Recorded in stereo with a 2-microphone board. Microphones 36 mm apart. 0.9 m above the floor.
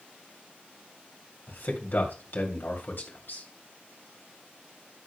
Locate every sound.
1.5 s a man speaking: 65° left (ahead or behind), 2.5 m